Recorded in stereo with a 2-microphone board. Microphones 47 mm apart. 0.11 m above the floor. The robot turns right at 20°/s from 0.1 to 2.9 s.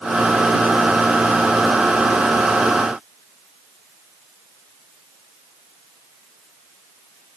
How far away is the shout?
No shout in this recording.